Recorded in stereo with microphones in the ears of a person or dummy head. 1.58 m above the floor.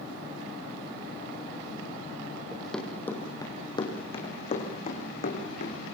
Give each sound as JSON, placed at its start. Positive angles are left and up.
{"t": 2.5, "sound": "running footsteps", "side_deg": 5, "distance_m": 3.5}